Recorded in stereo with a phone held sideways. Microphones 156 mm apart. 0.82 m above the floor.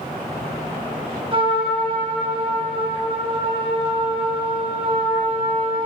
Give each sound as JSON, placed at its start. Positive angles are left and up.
{"t": 1.3, "sound": "a trumpet", "side_deg": -35, "distance_m": 2.5}